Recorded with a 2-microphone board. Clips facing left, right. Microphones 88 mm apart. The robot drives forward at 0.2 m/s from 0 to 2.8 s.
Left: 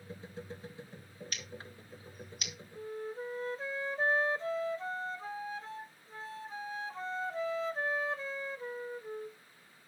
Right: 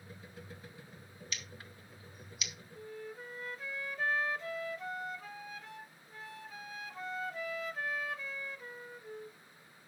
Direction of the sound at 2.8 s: 30° left (ahead or behind).